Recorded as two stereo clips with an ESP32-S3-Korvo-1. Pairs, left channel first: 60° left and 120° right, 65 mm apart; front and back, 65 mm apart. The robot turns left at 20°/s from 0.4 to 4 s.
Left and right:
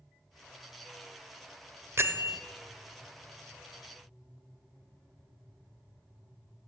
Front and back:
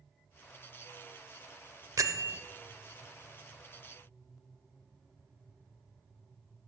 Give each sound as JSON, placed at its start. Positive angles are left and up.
{"t": 2.0, "sound": "a bell", "azimuth_deg": -165, "distance_m": 0.6}